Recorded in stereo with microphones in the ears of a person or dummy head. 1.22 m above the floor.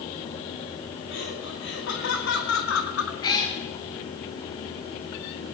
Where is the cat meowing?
25° left (ahead or behind), 2.0 m.